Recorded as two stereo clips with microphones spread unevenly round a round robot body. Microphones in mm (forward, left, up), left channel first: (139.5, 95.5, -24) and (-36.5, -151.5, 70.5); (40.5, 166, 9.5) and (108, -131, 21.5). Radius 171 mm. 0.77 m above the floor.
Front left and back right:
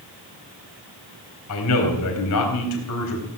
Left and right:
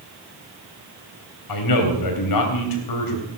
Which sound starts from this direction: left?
A man speaking, at 1.5 s.